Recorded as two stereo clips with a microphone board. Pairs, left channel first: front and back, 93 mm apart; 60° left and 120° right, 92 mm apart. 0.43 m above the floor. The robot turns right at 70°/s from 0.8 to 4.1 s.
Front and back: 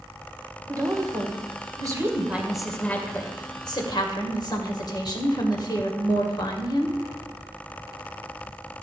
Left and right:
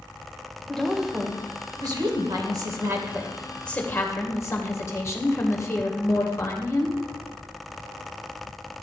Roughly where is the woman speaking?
Behind left.